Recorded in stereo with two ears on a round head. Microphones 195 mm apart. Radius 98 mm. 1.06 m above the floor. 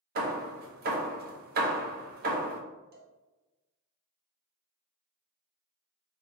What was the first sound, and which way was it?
Hammering, 45° right (ahead or behind).